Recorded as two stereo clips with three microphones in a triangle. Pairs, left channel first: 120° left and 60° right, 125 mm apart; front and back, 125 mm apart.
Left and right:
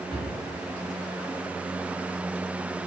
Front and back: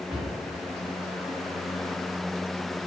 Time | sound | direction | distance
0.1 | a cupboard door | 150° right | 2.0 m